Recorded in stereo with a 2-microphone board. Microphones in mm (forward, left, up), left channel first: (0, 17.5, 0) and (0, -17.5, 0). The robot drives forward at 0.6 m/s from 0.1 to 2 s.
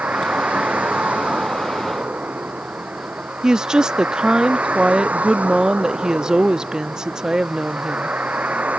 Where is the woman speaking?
20° right (ahead or behind).